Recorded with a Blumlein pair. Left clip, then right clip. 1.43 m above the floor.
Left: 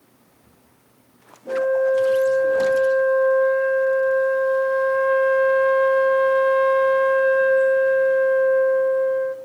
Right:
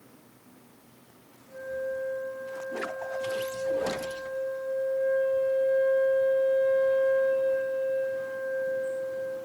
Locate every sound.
1.5 s a flute: 45° left, 1.6 m